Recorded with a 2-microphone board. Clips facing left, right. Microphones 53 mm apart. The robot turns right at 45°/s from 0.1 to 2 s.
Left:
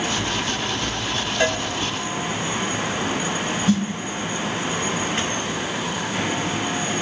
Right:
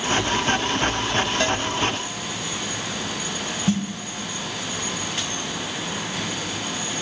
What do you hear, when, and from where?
1.4 s a cowbell: 15° left (ahead or behind), 1.9 m; by 1.6 s 10° left (ahead or behind), 1.9 m
3.7 s a snare drum: 35° right (ahead or behind), 3 m